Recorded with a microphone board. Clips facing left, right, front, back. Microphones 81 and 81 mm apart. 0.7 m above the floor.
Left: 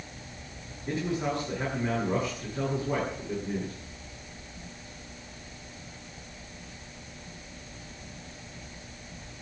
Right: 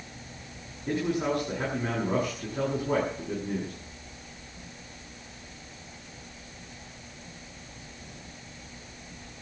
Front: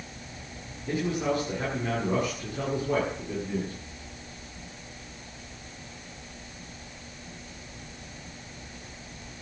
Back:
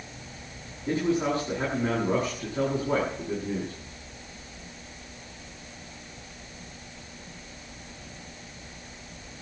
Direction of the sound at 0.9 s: 120° right.